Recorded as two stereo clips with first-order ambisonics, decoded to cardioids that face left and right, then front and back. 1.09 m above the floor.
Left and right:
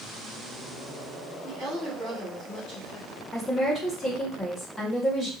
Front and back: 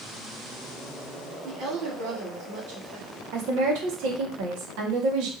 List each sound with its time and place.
1.4 s a woman speaking: 165° left, 1.7 m
3.3 s a woman speaking: 165° left, 1.7 m